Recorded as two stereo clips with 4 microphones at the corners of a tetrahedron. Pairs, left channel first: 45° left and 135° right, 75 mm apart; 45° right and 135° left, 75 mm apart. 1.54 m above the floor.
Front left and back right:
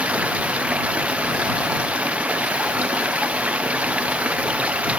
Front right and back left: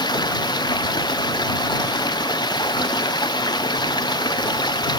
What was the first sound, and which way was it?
Running water, 60° right.